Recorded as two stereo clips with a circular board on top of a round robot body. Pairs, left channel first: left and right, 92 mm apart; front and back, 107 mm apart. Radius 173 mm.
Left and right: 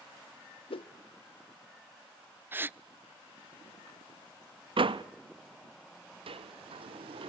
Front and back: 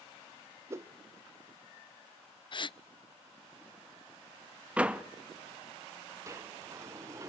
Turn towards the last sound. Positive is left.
turn(degrees=-115)